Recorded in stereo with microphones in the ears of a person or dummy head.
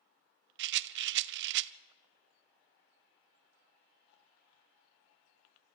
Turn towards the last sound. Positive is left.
turn(degrees=-65)  # may be behind; listen again after turning